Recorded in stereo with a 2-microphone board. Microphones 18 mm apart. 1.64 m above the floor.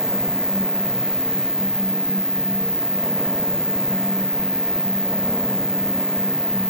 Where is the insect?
30° right (ahead or behind), 0.8 m.